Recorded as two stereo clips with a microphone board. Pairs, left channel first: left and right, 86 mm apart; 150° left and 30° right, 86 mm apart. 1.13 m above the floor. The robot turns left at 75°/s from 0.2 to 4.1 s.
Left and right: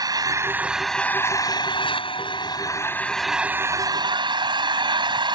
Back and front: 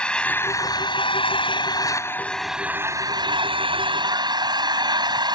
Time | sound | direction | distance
0.0 | an engine running | 130° right | ?